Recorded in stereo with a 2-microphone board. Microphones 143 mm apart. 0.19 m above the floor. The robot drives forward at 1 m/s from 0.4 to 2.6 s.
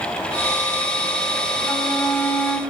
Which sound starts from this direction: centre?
A flute, at 1.6 s.